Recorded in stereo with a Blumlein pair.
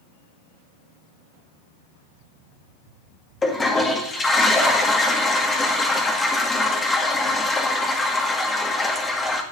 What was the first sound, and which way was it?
A toilet flushing, 15° left.